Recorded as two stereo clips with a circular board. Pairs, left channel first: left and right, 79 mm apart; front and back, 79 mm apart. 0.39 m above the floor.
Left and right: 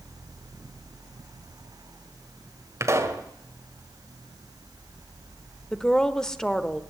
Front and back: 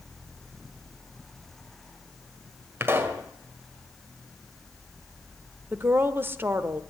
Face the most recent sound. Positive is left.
turn(degrees=165)